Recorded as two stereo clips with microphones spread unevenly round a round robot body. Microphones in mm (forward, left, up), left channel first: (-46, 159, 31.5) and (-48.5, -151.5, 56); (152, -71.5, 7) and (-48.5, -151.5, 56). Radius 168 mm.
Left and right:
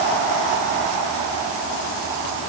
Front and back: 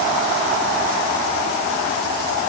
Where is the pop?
No pop in this recording.